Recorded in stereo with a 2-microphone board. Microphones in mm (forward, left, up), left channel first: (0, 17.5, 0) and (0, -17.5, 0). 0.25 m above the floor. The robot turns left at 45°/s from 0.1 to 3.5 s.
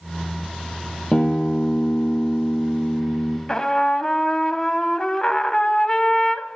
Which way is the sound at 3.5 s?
20° left (ahead or behind).